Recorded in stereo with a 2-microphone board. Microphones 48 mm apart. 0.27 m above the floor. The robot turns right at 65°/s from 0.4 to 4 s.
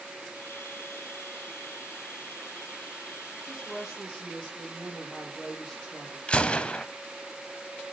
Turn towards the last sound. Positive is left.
turn(degrees=20)  # may be behind; listen again after turning